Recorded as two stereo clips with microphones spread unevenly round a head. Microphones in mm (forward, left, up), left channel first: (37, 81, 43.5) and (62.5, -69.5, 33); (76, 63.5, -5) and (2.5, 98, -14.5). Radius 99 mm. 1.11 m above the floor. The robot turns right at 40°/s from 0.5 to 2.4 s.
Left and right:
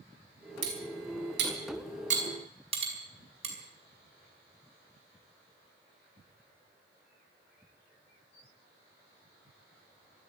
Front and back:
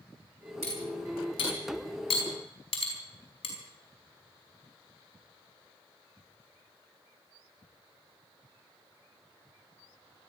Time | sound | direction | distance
0.6 | cutlery clinking | 95° right | 4.5 m